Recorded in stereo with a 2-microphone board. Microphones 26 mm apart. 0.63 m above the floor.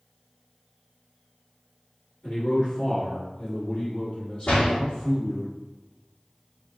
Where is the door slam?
60° left (ahead or behind), 1.0 m.